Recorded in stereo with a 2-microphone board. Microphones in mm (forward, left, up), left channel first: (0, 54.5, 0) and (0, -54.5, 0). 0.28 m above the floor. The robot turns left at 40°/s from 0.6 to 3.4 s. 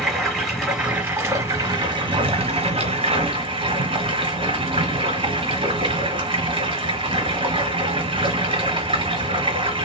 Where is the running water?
Straight ahead, 1.2 m; by 9.8 s 110° right, 1.2 m.